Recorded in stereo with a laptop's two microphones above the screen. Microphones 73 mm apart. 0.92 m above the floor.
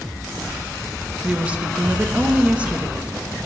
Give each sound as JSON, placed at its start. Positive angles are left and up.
{"t": 1.2, "sound": "a woman speaking", "side_deg": -15, "distance_m": 0.6}